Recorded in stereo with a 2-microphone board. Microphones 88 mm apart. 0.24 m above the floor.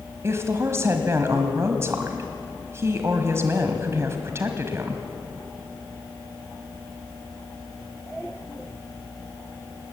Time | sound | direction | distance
0.2 | a woman speaking | 30° right (ahead or behind) | 1.5 m